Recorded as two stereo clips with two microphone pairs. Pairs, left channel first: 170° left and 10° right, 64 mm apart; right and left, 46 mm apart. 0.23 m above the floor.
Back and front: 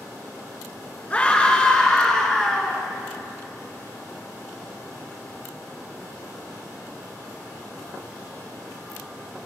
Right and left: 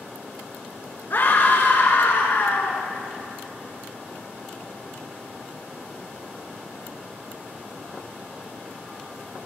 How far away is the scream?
About 4 m.